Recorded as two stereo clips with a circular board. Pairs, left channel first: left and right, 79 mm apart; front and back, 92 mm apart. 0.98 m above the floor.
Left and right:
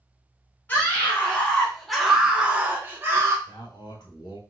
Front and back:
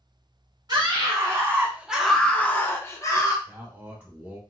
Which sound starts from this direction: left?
A man speaking, at 3.5 s.